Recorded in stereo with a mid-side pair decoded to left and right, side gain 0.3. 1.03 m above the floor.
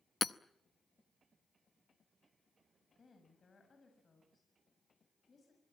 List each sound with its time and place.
0.2 s hammering: 45° left, 0.8 m
3.0 s a woman speaking: 50° left, 6.5 m